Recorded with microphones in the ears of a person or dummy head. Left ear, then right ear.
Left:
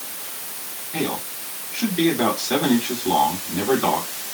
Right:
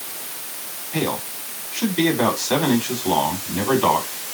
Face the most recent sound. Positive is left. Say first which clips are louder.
# right 2 dB
turn(degrees=-20)  # may be behind; listen again after turning